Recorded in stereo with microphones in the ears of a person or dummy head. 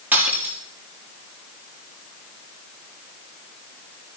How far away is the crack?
No crack in this recording.